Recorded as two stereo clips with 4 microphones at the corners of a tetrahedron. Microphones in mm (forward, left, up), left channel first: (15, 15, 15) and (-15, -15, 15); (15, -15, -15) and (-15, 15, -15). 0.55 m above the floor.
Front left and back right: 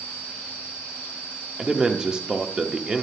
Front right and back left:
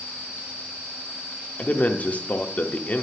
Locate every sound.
1.6 s a man speaking: 70° right, 0.8 m